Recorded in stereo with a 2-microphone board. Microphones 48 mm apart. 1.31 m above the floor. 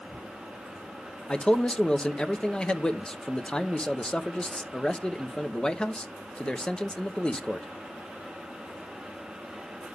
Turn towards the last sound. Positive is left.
turn(degrees=20)  # may be behind; listen again after turning